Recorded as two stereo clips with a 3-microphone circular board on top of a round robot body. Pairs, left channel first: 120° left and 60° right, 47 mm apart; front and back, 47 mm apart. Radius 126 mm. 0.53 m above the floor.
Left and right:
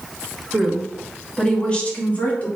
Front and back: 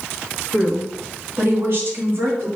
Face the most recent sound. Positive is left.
turn(degrees=170)